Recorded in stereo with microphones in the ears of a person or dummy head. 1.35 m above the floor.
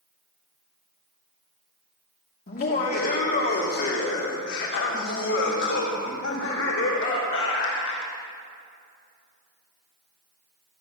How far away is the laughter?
About 2.5 m.